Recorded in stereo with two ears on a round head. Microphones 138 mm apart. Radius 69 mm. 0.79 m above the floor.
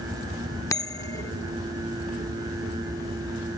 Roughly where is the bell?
Left.